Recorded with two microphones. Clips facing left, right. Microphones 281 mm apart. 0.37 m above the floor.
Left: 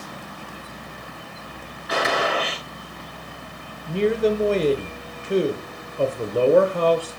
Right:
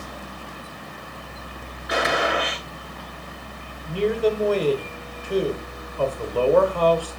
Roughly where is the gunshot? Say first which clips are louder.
Even; centre.